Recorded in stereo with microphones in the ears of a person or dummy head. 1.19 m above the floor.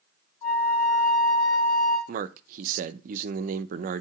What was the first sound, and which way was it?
A flute, 25° left (ahead or behind).